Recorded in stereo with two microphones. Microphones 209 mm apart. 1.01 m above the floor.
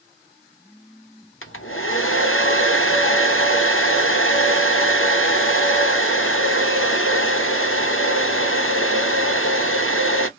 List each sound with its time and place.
1.4 s a hair dryer: 80° left, 0.7 m